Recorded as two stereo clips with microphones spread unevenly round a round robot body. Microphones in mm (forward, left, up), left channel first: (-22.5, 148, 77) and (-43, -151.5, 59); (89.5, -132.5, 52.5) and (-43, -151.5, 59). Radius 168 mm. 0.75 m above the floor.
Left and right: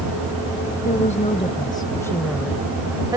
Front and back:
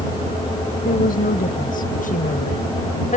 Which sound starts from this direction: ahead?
A woman speaking, at 0.8 s.